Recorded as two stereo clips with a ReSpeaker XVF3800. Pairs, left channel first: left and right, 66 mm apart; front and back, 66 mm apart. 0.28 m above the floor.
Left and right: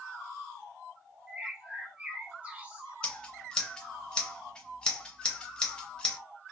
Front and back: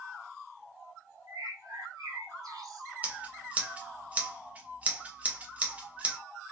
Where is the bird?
160° right, 1.1 m.